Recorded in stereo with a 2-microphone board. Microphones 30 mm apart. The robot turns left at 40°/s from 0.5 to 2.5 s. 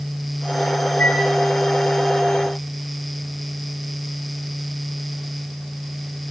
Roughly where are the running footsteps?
I don't hear running footsteps.